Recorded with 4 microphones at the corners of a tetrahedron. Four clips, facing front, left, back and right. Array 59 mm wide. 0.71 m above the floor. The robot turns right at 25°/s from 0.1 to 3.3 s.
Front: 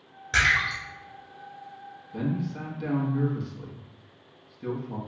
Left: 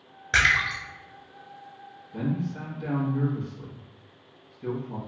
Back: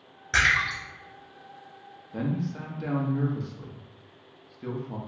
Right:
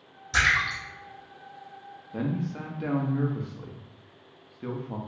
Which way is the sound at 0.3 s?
105° left.